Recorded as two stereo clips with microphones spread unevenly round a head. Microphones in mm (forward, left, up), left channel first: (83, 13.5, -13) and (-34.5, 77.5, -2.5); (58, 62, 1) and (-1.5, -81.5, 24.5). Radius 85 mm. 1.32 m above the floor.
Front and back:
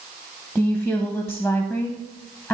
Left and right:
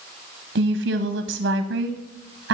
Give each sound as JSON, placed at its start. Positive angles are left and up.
{"t": 0.6, "sound": "a woman speaking", "azimuth_deg": -115, "distance_m": 0.7}